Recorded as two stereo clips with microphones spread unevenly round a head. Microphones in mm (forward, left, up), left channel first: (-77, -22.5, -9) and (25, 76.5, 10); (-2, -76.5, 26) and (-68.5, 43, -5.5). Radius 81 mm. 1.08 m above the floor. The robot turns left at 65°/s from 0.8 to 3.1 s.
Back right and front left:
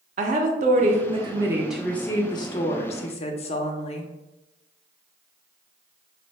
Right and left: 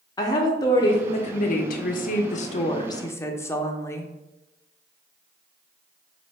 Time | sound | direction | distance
0.2 | a woman speaking | 10° left | 0.6 m